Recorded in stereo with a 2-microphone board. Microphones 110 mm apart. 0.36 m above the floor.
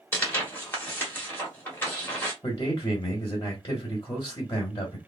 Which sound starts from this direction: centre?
Tearing paper, at 0.1 s.